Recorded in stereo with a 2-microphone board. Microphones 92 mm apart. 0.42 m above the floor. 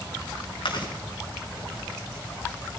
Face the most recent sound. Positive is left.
turn(degrees=65)  # may be behind; listen again after turning